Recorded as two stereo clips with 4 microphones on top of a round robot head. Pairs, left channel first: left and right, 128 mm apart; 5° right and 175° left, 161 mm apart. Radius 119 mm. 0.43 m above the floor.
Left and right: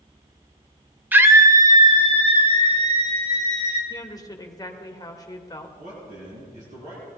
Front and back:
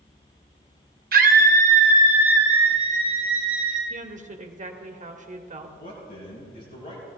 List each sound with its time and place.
1.1 s a scream: 165° right, 1.5 m; by 3.8 s 115° right, 4 m
3.9 s a woman speaking: 145° left, 1.7 m
5.8 s a man speaking: 50° right, 5 m